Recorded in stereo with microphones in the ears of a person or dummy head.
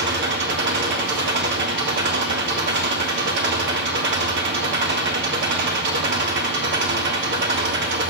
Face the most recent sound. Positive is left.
turn(degrees=-50)  # may be behind; listen again after turning